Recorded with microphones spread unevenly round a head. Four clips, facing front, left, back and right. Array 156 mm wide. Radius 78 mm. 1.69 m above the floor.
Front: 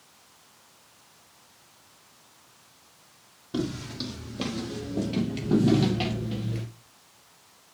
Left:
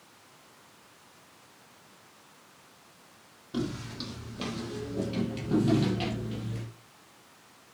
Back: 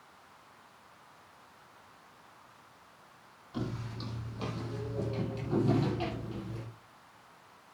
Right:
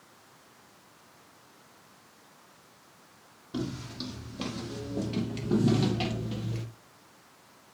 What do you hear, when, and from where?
3.5 s footsteps: 5° right, 5 m; by 6.7 s 30° right, 3.5 m